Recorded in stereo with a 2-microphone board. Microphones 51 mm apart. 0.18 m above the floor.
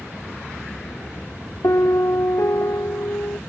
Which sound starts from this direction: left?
A piano, at 1.6 s.